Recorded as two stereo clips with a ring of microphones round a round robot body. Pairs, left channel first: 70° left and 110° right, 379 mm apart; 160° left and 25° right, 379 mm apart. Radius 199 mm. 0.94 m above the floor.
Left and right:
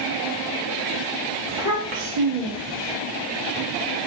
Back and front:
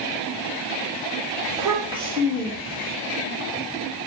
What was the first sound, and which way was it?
A child speaking, 105° right.